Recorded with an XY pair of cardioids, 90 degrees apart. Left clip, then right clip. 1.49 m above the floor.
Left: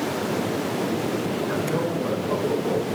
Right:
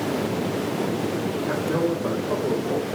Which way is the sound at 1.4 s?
45° right.